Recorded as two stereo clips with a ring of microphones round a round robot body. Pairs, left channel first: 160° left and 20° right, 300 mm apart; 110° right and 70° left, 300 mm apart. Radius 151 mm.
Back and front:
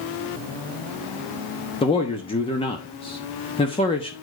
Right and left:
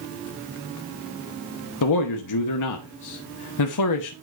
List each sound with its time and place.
1.8 s a man speaking: 130° right, 1.0 m